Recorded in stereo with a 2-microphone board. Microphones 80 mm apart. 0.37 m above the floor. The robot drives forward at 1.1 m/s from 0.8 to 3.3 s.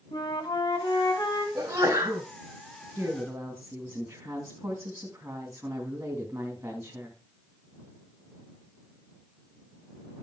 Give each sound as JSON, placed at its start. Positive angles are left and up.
{"t": 0.1, "sound": "a flute", "side_deg": 70, "distance_m": 3.0}
{"t": 1.6, "sound": "a sneeze", "side_deg": -35, "distance_m": 2.5}
{"t": 3.0, "sound": "a woman speaking", "side_deg": -30, "distance_m": 2.5}